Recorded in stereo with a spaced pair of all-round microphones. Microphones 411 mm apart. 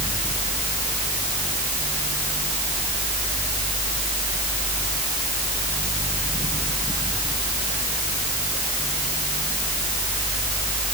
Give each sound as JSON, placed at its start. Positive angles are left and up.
{"t": 0.0, "sound": "a fan", "side_deg": 10}